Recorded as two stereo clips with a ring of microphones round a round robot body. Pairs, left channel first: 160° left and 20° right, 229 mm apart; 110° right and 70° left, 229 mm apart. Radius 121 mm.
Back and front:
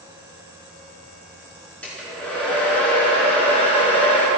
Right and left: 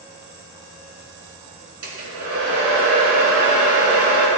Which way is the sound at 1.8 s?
75° left.